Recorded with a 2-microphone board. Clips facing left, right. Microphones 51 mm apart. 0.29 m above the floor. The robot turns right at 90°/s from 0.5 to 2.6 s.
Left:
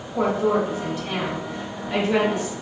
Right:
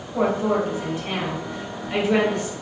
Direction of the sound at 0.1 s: 160° right.